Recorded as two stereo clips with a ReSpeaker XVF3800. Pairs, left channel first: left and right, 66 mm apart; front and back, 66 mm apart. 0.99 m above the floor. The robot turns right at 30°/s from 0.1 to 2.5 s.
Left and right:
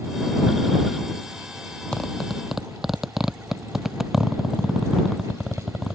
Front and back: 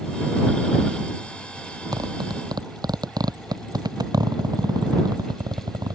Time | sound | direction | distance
1.9 | a zipper | 170° left | ?